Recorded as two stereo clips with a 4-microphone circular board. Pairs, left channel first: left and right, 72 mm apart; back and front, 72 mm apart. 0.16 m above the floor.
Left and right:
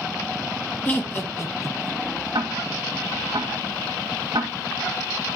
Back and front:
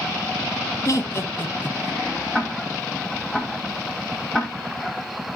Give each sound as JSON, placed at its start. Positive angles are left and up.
{"t": 0.8, "sound": "laughter", "azimuth_deg": 145, "distance_m": 2.5}
{"t": 2.3, "sound": "ticking", "azimuth_deg": -95, "distance_m": 1.9}